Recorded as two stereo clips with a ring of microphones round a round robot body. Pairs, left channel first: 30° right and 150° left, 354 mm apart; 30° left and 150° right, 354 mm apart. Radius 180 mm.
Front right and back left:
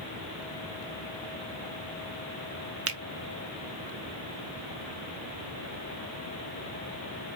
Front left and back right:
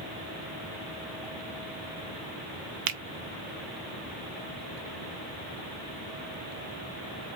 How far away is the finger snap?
About 1.0 m.